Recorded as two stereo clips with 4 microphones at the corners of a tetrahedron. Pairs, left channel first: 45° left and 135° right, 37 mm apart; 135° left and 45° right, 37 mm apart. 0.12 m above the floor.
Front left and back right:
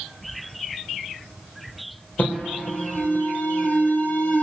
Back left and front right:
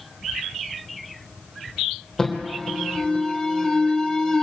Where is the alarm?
55° left, 3 m.